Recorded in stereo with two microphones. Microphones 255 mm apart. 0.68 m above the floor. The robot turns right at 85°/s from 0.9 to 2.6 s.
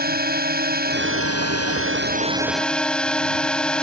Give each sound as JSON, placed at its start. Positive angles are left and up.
{"t": 0.0, "sound": "a drone", "azimuth_deg": -140}